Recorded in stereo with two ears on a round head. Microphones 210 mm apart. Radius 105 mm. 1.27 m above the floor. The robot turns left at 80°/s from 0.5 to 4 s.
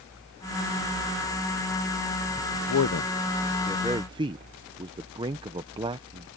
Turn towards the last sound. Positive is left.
turn(degrees=-20)  # may be behind; listen again after turning